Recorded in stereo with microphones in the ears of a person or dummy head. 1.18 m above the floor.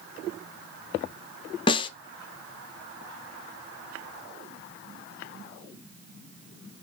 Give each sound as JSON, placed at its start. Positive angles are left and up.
{"t": 1.7, "sound": "a snare drum", "side_deg": 25, "distance_m": 0.6}